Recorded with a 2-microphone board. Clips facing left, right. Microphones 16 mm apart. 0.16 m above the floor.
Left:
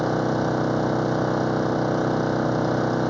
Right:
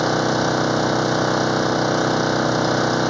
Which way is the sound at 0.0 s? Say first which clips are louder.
Right 4 dB; 60° right (ahead or behind).